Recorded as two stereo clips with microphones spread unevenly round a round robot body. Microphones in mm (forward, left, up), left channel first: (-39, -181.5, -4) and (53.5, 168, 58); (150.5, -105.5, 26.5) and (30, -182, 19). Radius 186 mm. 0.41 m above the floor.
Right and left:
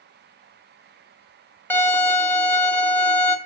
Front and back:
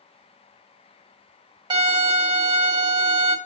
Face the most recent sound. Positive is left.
turn(degrees=-175)